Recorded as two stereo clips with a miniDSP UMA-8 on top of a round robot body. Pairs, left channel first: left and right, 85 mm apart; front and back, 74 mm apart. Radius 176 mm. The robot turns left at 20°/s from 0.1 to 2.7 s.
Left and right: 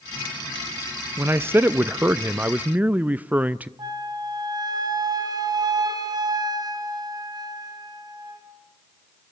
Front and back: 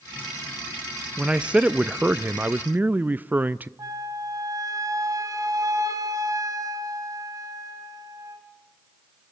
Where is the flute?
135° right, 2 m.